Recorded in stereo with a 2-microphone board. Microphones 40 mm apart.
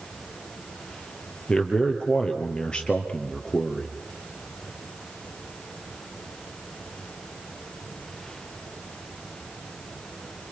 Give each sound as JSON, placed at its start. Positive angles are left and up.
{"t": 1.5, "sound": "a man speaking", "side_deg": 20, "distance_m": 3.0}